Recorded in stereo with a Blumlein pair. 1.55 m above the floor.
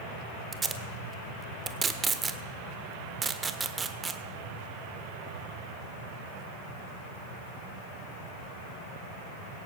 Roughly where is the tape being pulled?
Ahead.